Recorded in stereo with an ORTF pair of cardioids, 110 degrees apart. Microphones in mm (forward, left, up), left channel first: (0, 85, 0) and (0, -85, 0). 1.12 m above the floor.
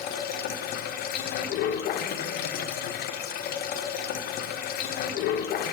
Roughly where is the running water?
Ahead left.